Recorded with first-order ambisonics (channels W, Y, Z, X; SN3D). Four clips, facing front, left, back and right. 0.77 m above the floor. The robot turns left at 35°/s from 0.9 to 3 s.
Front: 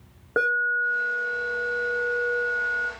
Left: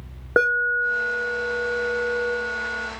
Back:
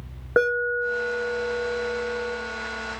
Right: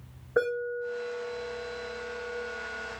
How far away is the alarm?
About 1.9 m.